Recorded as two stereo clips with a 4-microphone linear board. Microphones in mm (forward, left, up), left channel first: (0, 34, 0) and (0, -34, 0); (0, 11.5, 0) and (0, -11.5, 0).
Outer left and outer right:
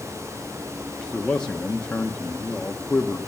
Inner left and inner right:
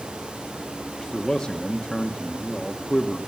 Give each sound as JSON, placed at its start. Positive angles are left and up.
{"t": 1.0, "sound": "a man speaking", "side_deg": 15, "distance_m": 0.9}